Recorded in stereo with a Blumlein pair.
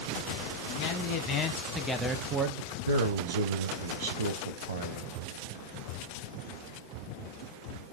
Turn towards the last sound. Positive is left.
turn(degrees=-65)